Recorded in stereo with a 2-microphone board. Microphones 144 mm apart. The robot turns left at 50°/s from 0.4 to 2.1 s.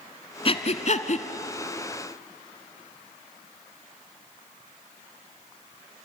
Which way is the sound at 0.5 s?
40° left (ahead or behind).